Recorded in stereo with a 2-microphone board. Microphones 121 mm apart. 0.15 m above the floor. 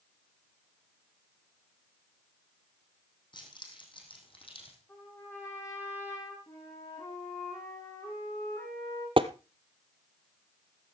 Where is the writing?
I don't hear writing.